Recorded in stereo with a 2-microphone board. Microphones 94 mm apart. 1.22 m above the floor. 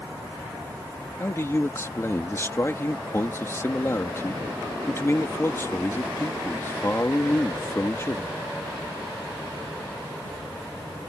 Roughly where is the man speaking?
Left.